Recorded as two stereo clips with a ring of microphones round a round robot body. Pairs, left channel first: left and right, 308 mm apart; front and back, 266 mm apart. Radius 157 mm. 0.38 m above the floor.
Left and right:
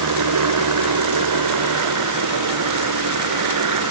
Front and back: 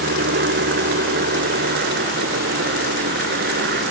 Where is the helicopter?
120° right.